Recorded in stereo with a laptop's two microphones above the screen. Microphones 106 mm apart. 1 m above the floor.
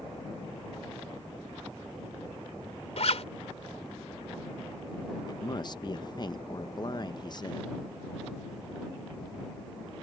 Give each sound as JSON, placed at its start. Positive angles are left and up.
{"t": 3.0, "sound": "a zipper", "side_deg": 70}
{"t": 5.3, "sound": "a man speaking", "side_deg": 40}